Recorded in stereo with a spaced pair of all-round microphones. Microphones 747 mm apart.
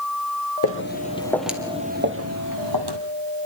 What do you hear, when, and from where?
0.6 s footsteps: 20° left (ahead or behind), 2.5 m; by 3.0 s 35° right (ahead or behind), 2.5 m